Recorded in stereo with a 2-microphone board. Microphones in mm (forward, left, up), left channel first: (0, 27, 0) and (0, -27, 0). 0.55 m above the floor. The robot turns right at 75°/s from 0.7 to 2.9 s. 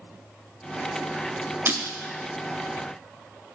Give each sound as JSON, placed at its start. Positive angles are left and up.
{"t": 1.7, "sound": "breaking glass", "side_deg": -40, "distance_m": 1.0}